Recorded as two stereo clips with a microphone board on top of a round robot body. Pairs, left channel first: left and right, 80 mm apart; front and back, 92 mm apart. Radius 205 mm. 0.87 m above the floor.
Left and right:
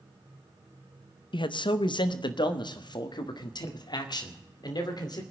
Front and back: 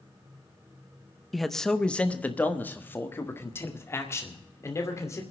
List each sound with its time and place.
1.3 s a man speaking: 90° left, 0.9 m; by 5.2 s 60° left, 3 m